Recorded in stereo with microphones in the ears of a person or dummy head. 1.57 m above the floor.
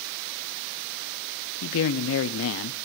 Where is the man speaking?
75° left (ahead or behind), 0.6 m.